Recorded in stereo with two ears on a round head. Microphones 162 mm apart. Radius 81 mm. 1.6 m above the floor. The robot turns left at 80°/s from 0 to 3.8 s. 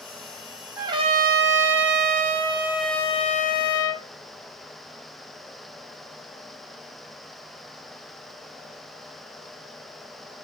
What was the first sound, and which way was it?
A trumpet, 10° right.